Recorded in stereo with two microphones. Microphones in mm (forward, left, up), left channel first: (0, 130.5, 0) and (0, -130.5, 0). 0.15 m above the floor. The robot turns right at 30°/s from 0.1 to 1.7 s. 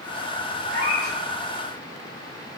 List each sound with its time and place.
0.7 s a cat meowing: 45° right (ahead or behind), 1.4 m; by 1.2 s 35° right (ahead or behind), 1.4 m